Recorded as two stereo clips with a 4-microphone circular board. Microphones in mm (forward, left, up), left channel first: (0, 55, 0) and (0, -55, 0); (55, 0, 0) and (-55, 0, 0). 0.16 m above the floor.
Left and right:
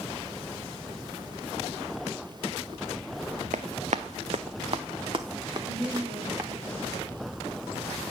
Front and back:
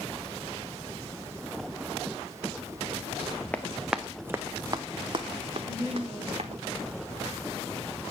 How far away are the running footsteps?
About 0.7 m.